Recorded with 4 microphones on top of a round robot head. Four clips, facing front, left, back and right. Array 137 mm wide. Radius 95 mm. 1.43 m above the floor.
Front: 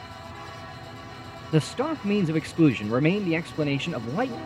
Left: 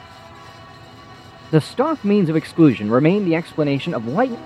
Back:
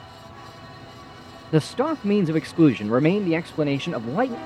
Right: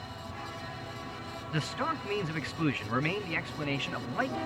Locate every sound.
1.5 s a man speaking: 105° left